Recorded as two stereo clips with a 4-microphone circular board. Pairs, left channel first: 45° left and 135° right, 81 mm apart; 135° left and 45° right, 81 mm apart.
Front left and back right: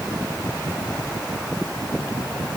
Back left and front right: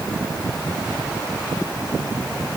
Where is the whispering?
I don't hear whispering.